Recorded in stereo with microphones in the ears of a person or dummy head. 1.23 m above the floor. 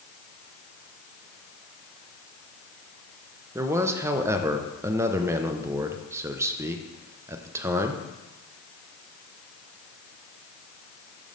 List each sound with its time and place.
3.5 s a man speaking: 15° right (ahead or behind), 0.6 m